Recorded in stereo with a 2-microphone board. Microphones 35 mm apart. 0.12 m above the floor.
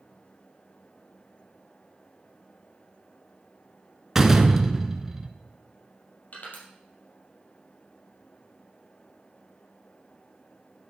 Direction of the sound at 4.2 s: 15° right (ahead or behind).